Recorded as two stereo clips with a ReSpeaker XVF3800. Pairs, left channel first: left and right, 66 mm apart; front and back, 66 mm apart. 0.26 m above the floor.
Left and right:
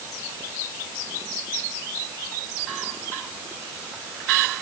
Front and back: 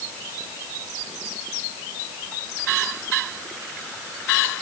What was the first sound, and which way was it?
Only background noise.